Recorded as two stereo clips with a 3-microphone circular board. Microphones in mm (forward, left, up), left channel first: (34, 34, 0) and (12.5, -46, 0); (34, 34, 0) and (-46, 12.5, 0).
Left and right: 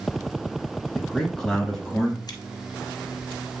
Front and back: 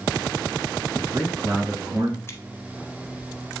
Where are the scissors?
65° left, 1.1 m.